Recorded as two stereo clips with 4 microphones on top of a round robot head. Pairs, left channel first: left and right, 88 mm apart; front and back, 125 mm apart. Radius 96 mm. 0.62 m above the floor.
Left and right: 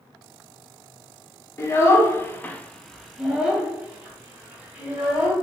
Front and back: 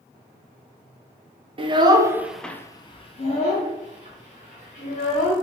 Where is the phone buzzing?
No phone buzzing in this recording.